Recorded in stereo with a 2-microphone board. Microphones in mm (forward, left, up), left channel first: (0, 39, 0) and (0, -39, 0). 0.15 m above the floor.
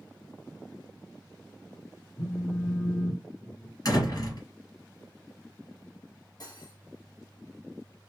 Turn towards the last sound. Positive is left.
turn(degrees=55)  # may be behind; listen again after turning